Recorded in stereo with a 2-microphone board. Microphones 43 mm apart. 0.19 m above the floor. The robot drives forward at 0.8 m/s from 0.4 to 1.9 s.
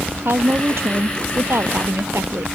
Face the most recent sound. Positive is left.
turn(degrees=-75)  # may be behind; listen again after turning